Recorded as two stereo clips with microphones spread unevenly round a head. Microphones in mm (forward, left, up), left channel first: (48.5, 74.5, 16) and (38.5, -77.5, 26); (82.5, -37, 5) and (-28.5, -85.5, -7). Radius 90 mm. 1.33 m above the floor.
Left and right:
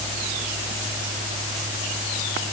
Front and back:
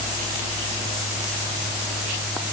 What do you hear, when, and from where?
Only background noise.